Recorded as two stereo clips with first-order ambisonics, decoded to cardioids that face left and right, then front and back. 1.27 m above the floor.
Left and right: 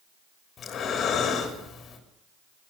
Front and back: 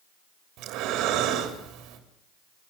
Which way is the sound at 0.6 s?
150° left.